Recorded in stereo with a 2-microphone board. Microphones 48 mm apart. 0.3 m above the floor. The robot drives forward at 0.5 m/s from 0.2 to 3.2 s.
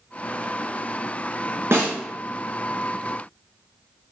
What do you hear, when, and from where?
1.7 s a snare drum: 55° right (ahead or behind), 1.7 m